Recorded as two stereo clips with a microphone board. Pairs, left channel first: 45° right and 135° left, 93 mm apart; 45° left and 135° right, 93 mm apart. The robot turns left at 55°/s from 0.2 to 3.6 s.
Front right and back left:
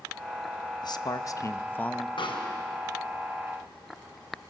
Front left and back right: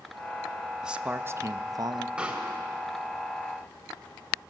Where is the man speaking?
55° right, 0.8 m; by 2.1 s 125° right, 0.8 m.